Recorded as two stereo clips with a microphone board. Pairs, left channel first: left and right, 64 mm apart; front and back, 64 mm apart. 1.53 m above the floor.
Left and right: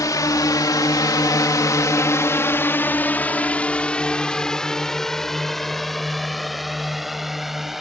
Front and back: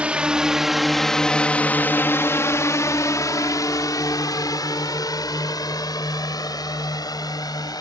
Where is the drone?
110° left; by 7.8 s 5° right.